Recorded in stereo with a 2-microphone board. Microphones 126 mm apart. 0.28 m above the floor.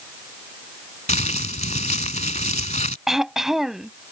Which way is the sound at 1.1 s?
70° left (ahead or behind).